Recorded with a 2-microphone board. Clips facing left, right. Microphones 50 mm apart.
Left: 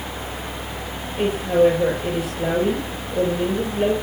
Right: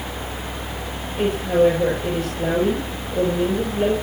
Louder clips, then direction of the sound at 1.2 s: Even; 5° left (ahead or behind).